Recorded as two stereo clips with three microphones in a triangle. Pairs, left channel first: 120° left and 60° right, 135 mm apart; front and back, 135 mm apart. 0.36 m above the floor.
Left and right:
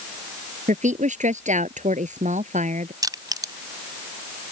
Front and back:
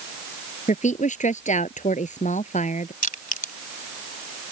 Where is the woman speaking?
30° right.